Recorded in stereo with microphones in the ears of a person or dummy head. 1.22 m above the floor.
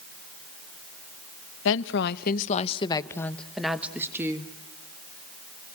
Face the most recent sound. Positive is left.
turn(degrees=-20)  # may be behind; listen again after turning